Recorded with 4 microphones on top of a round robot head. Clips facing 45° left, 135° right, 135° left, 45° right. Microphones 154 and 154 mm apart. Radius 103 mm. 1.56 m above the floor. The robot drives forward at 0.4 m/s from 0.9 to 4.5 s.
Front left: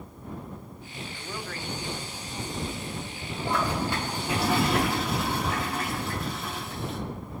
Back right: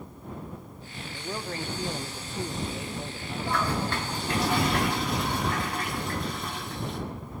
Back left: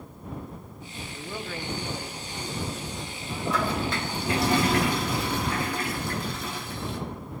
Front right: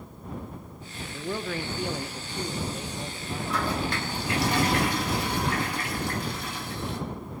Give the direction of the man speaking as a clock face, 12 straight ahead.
2 o'clock.